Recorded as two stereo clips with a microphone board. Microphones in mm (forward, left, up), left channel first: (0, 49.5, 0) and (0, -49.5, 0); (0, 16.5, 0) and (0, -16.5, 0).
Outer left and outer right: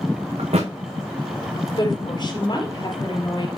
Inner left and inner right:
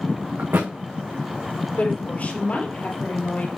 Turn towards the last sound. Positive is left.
turn(degrees=40)  # may be behind; listen again after turning